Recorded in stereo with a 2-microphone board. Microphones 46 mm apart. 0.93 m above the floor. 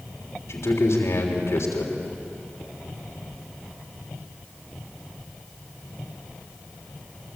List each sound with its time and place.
0.5 s a man speaking: 75° left (ahead or behind), 3.5 m